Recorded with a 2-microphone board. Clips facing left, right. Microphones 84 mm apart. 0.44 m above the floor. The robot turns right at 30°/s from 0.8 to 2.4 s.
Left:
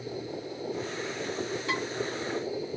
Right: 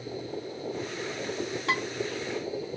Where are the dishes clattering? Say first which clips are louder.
Right 4 dB; 70° right (ahead or behind), 1.9 m; by 1.8 s 65° right (ahead or behind), 1.9 m.